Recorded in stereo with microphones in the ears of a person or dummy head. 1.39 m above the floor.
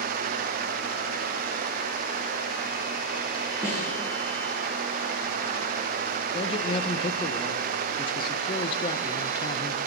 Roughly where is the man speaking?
Left.